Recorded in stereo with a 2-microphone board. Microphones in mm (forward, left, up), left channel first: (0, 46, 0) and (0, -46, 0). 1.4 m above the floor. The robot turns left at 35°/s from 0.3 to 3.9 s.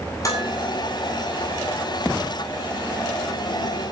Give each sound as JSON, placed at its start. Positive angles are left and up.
{"t": 0.2, "sound": "dishes clattering", "side_deg": 35, "distance_m": 8.5}